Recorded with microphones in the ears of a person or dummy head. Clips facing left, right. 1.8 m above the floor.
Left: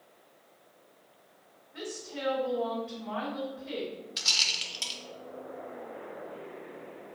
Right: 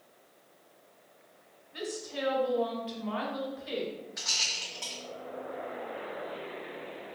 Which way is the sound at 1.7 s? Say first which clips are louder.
Right 2 dB; 50° right (ahead or behind).